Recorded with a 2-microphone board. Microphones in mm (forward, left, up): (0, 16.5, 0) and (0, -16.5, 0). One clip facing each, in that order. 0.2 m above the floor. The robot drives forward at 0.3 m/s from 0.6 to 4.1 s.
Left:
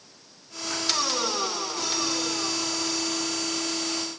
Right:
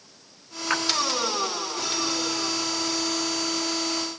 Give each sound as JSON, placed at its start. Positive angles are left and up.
{"t": 0.7, "sound": "a splash", "side_deg": -60, "distance_m": 1.0}